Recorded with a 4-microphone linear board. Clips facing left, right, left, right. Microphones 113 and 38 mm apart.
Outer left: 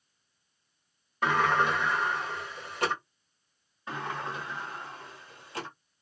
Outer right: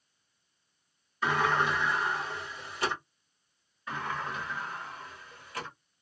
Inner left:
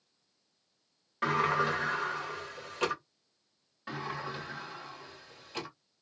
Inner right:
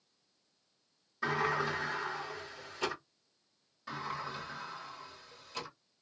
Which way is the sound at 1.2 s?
60° left (ahead or behind).